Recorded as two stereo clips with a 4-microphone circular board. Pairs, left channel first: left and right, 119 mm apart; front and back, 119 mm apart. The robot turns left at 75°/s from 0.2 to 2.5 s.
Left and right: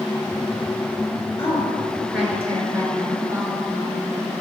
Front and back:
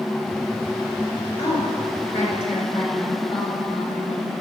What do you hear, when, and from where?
1.4 s a woman speaking: 55° left, 3.5 m; by 4.3 s 25° right, 3.5 m